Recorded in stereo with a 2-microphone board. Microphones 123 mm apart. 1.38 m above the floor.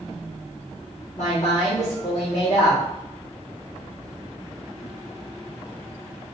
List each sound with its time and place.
1.2 s a woman speaking: 25° left (ahead or behind), 3.5 m